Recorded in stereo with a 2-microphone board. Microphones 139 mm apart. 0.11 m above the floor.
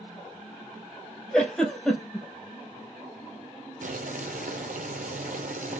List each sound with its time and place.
1.3 s a giggle: 5° left (ahead or behind), 1.4 m
3.8 s boiling: 75° right (ahead or behind), 0.5 m